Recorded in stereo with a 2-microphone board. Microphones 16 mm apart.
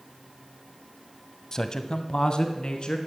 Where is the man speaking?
30° left (ahead or behind), 1.1 m; by 3.0 s 60° left (ahead or behind), 2.5 m.